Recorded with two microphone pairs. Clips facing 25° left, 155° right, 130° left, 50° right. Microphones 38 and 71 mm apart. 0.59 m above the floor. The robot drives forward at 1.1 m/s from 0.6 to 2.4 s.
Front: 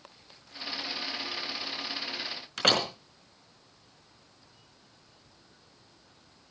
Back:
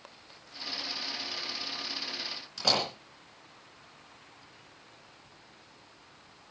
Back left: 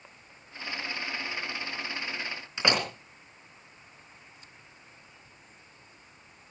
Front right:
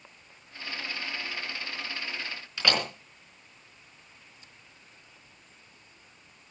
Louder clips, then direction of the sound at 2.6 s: Front 3 dB, back left 1 dB; 65° left.